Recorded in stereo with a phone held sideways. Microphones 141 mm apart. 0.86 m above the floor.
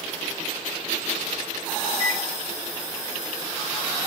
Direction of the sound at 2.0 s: 45° left (ahead or behind).